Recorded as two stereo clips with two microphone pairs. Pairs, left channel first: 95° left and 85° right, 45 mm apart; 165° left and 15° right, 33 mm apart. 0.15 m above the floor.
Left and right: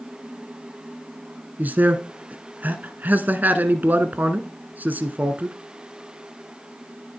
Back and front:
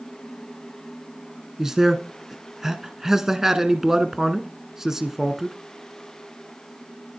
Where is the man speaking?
85° right, 1.3 m.